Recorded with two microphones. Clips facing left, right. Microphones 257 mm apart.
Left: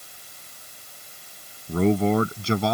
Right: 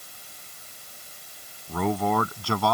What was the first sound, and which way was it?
A man speaking, 30° left (ahead or behind).